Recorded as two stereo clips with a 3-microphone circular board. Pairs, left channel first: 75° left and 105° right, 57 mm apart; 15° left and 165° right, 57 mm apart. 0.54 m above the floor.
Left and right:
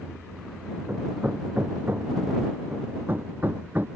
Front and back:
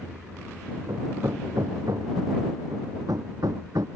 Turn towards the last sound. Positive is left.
turn(degrees=-160)